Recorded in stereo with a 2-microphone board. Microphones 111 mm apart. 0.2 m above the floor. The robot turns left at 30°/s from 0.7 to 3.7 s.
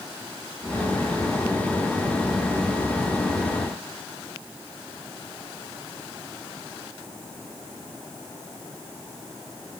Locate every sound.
Only background noise.